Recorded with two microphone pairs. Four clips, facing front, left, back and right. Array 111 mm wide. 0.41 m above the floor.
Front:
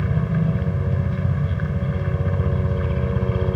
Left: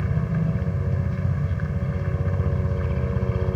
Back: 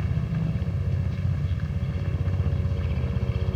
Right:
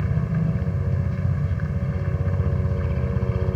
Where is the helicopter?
5° left.